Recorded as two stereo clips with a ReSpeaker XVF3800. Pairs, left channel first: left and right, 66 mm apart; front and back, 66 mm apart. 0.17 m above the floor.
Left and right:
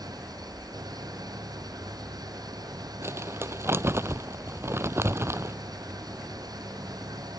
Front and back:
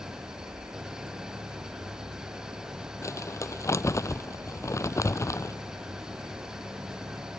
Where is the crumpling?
40° right.